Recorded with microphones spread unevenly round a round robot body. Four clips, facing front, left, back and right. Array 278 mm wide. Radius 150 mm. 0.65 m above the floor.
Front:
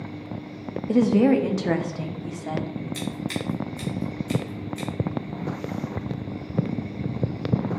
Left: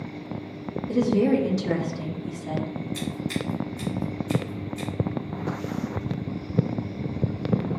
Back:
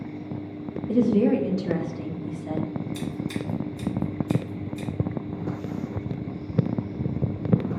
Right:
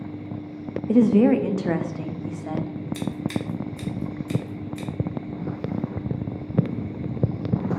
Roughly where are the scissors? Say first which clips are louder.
Right 3 dB, even; behind right.